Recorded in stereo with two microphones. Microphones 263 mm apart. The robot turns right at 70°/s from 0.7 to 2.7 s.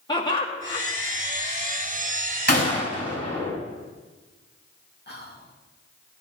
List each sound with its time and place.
0.1 s laughter: 20° left (ahead or behind), 2.5 m; by 0.8 s 30° left (ahead or behind), 2.5 m
2.5 s a gunshot: 45° left (ahead or behind), 4.5 m; by 3.5 s 30° left (ahead or behind), 4.5 m
5.1 s whispering: 40° left (ahead or behind), 2.5 m